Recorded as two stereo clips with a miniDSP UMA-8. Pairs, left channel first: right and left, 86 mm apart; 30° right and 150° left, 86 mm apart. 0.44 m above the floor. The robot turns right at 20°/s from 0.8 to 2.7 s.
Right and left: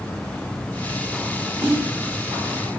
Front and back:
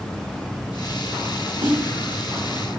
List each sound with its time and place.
1.6 s a snare drum: 145° left, 1.5 m; by 1.8 s 150° left, 1.5 m